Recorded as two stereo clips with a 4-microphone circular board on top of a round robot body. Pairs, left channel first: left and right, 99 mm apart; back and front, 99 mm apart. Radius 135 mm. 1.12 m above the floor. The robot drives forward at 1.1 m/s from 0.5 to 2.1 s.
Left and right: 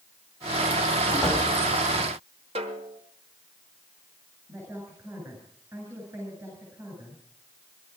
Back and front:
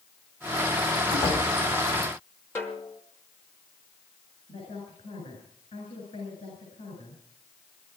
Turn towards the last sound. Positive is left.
turn(degrees=-160)